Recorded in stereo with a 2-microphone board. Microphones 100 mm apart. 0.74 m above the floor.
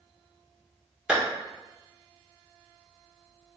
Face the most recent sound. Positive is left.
turn(degrees=-10)  # may be behind; listen again after turning